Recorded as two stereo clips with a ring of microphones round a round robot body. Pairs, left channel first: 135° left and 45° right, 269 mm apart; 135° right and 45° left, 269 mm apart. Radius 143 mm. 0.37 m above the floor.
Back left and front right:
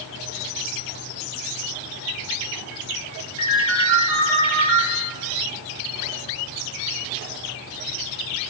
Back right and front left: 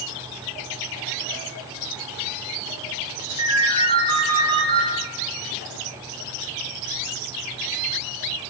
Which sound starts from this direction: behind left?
A ringtone, at 3.4 s.